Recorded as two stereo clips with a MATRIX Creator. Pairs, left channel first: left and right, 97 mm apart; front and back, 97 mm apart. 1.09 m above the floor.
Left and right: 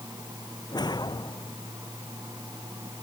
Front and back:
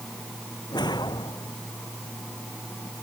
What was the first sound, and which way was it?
A whoosh, 45° left.